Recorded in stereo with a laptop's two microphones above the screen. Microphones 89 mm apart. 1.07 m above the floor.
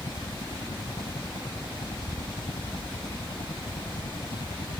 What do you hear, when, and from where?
0.0 s a helicopter: 80° left